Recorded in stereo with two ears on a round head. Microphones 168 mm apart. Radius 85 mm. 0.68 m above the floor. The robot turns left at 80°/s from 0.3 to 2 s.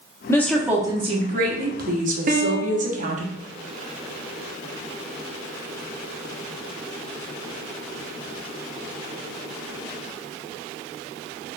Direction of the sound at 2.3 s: 45° right (ahead or behind).